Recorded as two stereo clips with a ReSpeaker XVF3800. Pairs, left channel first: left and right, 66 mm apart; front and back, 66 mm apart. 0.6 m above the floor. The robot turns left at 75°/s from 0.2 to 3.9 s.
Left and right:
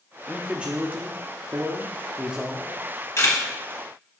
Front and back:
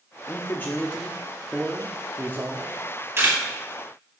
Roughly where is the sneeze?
I don't hear a sneeze.